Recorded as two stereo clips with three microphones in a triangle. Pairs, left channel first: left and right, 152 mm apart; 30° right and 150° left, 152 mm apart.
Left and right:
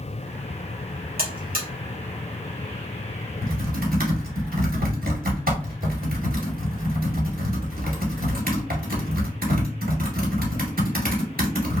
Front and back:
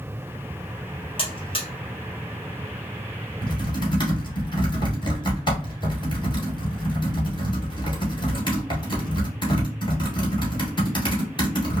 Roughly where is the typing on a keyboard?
Right.